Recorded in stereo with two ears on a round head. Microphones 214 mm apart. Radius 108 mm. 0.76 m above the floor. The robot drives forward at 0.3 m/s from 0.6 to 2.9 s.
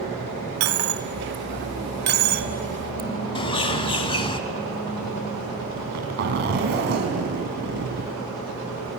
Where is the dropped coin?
65° right (ahead or behind), 0.8 m; by 3.1 s 35° right (ahead or behind), 1.1 m.